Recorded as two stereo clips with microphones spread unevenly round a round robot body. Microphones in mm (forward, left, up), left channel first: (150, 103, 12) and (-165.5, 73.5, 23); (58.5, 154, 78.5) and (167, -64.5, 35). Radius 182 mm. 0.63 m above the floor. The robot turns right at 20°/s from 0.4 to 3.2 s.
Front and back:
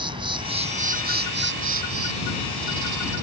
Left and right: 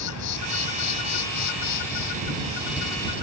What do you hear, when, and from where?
0.0 s an insect: 110° left; by 3.2 s 165° left